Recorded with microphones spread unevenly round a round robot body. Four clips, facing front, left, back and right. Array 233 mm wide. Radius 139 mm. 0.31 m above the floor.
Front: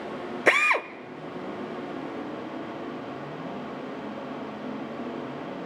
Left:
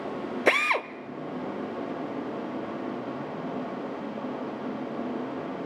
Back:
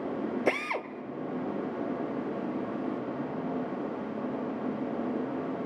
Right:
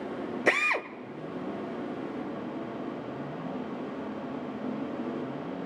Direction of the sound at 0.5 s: 35° left.